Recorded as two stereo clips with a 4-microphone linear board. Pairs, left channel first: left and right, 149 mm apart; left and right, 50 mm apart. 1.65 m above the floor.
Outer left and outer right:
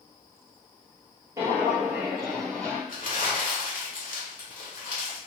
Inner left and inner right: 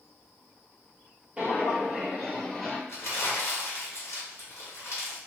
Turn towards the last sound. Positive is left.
turn(degrees=65)  # may be behind; listen again after turning